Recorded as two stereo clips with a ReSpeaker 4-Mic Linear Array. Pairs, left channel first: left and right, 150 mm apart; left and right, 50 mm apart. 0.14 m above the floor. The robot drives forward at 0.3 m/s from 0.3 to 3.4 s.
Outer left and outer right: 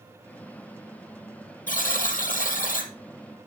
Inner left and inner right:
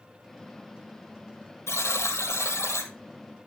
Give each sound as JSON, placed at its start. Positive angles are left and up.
{"t": 1.7, "sound": "a buzzer", "side_deg": 75, "distance_m": 1.5}